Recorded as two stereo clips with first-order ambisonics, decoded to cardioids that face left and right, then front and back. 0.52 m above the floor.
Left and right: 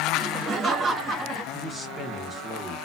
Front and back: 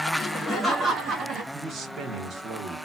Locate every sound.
0.1 s laughter: 60° right, 0.8 m; by 1.4 s 165° right, 1.0 m
1.5 s a man speaking: 165° left, 1.0 m